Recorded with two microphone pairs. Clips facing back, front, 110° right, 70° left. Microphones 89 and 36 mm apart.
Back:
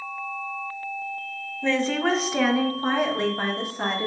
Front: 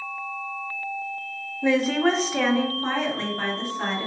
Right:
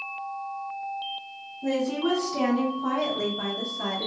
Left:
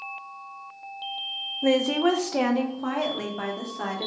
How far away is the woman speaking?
About 0.6 m.